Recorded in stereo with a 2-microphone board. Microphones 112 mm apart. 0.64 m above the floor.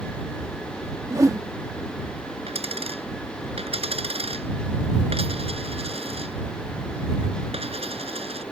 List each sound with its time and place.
1.1 s a whoosh: 30° right (ahead or behind)
2.5 s a dropped coin: 65° right (ahead or behind)